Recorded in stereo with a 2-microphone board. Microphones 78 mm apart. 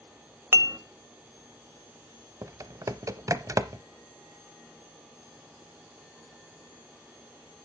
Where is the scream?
No scream in this recording.